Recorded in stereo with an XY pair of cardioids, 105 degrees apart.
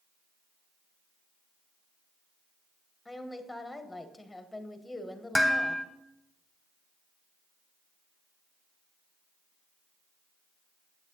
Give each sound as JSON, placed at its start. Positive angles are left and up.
{"t": 3.0, "sound": "a woman speaking", "azimuth_deg": 10, "distance_m": 1.2}
{"t": 5.3, "sound": "dishes clattering", "azimuth_deg": 5, "distance_m": 1.6}